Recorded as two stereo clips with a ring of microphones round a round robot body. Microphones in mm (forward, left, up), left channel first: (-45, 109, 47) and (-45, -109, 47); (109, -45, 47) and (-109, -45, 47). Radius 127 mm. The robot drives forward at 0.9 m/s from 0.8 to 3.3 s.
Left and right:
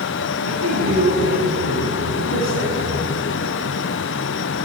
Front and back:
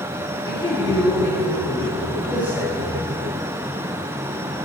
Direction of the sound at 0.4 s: 70° right.